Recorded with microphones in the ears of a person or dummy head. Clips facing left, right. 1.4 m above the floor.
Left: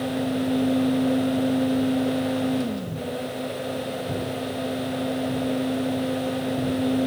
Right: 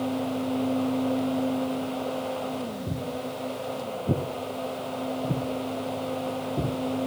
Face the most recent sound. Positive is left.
turn(degrees=-35)  # may be behind; listen again after turning